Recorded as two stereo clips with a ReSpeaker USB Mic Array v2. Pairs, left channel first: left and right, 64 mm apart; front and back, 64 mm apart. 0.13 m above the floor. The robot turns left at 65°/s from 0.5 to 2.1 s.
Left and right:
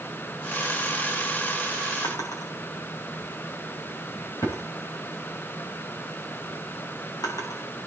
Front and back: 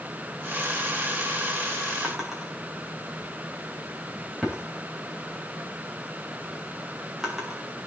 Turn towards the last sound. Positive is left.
turn(degrees=95)